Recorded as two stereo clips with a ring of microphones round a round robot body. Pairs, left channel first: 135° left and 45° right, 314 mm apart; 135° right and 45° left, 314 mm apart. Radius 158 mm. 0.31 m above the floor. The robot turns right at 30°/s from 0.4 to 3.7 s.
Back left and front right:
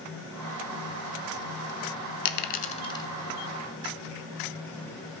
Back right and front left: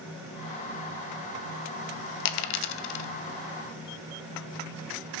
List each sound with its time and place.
2.2 s a dropped coin: 170° right, 0.6 m; by 3.1 s 145° right, 0.6 m